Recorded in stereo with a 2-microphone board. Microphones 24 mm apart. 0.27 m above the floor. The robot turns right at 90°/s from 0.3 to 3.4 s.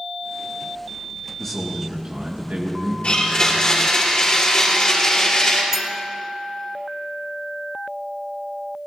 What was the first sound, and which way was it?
A man speaking, 160° left.